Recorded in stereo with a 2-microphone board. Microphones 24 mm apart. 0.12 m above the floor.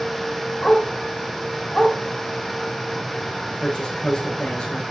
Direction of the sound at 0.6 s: 40° left (ahead or behind).